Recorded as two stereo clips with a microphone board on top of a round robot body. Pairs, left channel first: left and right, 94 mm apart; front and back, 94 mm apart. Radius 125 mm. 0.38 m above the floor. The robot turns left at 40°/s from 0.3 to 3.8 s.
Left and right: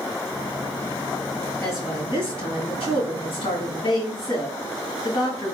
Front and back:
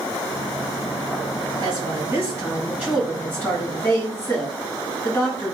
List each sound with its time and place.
1.6 s a woman speaking: 150° left, 2.5 m; by 5.5 s 65° left, 2.5 m